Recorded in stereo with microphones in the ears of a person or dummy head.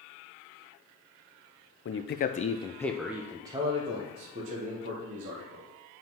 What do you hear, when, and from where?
1.9 s a man speaking: 55° left (ahead or behind), 0.6 m; by 5.7 s 45° right (ahead or behind), 1.7 m